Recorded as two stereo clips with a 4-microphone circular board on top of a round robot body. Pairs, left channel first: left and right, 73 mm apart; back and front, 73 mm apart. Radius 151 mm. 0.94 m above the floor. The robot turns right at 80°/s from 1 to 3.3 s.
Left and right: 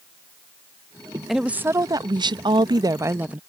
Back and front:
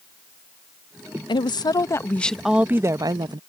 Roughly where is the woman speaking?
Behind.